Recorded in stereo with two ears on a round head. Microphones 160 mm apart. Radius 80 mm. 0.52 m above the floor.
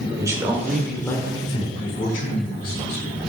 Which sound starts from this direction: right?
A man speaking, at 0.2 s.